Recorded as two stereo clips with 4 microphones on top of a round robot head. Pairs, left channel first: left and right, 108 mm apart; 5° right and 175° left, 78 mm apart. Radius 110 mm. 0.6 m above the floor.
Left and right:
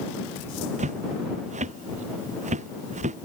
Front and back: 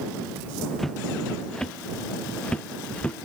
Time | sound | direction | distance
0.8 | footsteps | 95° right | ?